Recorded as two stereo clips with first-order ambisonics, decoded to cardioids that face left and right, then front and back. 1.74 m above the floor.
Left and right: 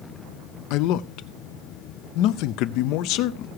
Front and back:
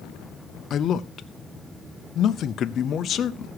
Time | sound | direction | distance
0.7 | a man speaking | 60° left | 0.6 m